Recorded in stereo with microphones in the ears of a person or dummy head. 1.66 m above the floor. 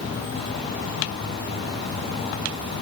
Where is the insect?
60° left (ahead or behind), 0.9 m.